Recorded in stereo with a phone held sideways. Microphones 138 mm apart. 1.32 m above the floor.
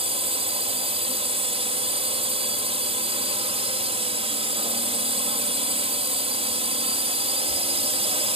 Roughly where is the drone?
Right.